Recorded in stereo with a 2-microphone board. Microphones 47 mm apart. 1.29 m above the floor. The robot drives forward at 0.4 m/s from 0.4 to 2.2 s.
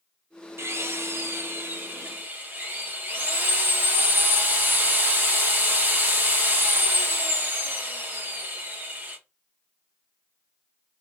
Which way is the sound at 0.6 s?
60° right (ahead or behind).